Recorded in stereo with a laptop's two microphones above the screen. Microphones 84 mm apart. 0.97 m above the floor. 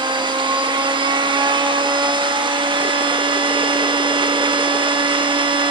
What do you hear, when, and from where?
0.0 s a machine running: 70° right (ahead or behind), 1.3 m